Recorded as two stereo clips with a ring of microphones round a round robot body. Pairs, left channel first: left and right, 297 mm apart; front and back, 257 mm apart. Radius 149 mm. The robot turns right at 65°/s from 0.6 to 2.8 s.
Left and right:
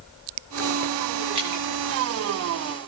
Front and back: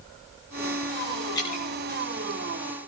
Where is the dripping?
80° right, 9 m; by 1.6 s 60° right, 9 m.